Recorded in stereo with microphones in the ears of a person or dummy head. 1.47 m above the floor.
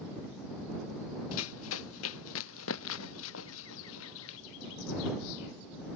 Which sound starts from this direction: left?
Running footsteps, at 1.3 s.